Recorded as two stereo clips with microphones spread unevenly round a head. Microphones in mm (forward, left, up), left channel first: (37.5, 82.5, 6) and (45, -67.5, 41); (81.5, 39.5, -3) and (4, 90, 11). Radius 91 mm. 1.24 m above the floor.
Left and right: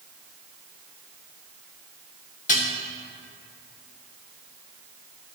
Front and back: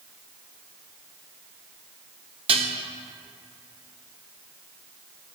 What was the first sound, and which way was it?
Dishes clattering, 145° left.